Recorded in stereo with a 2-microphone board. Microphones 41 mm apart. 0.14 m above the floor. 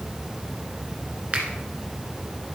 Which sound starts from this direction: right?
A finger snap, at 1.3 s.